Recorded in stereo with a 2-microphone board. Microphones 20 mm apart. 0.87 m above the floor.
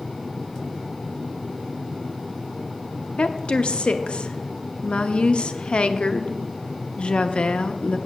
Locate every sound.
3.2 s a woman speaking: 65° left (ahead or behind), 0.7 m